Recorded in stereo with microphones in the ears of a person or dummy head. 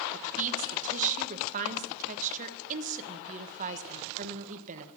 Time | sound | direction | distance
0.1 | a woman speaking | 45° right (ahead or behind) | 1.2 m